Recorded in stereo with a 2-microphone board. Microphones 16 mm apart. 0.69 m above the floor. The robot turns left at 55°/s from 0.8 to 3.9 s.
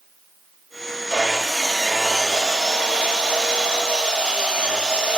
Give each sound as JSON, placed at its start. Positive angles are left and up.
{"t": 1.1, "sound": "sawing", "azimuth_deg": 40, "distance_m": 7.0}